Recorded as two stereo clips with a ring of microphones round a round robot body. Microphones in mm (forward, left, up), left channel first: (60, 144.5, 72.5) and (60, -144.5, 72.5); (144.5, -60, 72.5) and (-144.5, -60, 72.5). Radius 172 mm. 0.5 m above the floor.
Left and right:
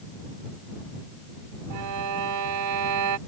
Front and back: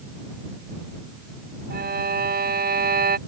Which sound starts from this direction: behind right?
A violin, at 1.7 s.